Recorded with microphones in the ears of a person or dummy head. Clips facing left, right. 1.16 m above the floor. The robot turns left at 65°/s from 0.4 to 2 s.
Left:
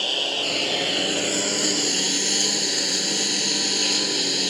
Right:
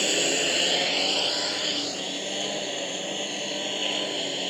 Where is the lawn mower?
30° right (ahead or behind); by 4.5 s 80° left.